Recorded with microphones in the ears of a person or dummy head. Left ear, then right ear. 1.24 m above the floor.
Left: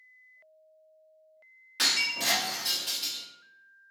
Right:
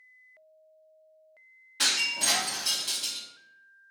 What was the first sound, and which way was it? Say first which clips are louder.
Breaking glass: even; 30° left (ahead or behind).